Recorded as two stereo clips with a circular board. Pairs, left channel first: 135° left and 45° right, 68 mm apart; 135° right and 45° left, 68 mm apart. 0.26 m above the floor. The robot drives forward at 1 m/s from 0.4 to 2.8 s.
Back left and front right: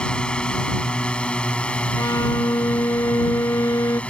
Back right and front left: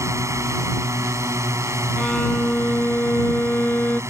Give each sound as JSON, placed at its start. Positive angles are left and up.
{"t": 0.0, "sound": "a drone", "azimuth_deg": 65}
{"t": 2.0, "sound": "a violin", "azimuth_deg": 145}